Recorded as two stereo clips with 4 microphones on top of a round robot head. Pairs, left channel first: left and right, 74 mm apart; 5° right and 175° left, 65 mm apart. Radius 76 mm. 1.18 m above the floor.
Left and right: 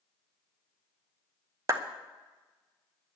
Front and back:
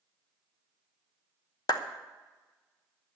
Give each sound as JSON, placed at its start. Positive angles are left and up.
{"t": 1.7, "sound": "a clap", "azimuth_deg": -35, "distance_m": 0.9}